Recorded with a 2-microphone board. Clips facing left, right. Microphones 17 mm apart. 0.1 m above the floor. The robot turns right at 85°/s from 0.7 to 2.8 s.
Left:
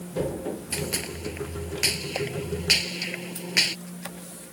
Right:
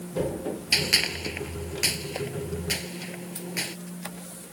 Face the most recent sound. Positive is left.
turn(degrees=50)  # may be behind; listen again after turning